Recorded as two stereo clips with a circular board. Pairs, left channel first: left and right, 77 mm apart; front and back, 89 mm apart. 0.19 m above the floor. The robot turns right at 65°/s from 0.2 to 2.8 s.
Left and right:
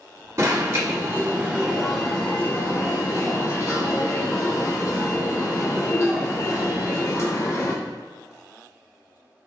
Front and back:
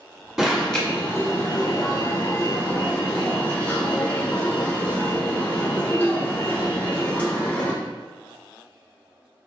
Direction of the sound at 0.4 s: 95° right.